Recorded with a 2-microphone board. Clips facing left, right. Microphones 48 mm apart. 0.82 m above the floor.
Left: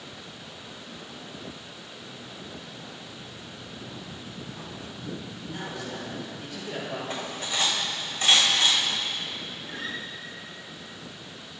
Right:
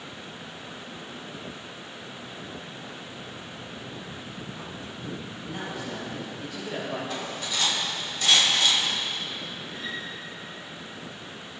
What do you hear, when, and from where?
5.4 s a man speaking: 20° right (ahead or behind), 3.5 m; by 7.0 s 5° right (ahead or behind), 3.5 m
7.1 s cutlery clinking: 35° left (ahead or behind), 2 m
9.7 s a guitar: 80° left, 1.1 m